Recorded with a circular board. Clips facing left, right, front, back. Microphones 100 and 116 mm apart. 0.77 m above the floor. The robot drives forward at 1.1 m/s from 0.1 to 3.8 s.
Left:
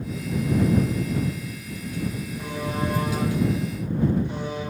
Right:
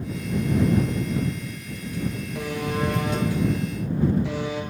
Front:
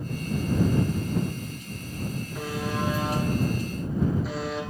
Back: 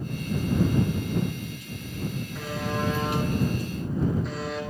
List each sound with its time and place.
2.4 s a buzzer: 75° right, 9 m; by 4.6 s 85° right, 8.5 m